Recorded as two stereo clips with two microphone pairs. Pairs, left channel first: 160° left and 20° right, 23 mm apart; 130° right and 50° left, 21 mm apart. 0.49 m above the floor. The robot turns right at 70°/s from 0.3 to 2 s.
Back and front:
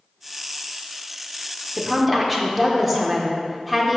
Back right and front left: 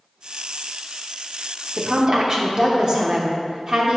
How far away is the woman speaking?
About 1.0 m.